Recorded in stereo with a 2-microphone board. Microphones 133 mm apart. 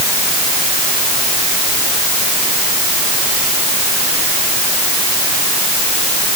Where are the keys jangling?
No keys jangling in this recording.